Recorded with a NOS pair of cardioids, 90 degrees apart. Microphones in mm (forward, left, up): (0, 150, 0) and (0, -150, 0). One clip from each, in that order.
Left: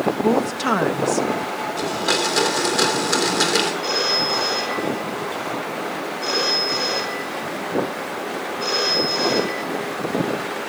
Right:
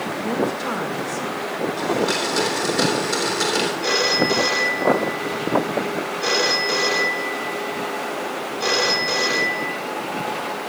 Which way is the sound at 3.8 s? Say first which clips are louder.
Right 2 dB; 45° right.